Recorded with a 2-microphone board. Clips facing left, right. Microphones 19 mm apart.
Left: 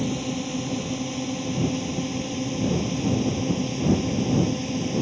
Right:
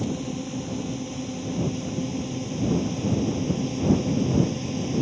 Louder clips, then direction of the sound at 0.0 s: Left 2 dB; 25° left (ahead or behind).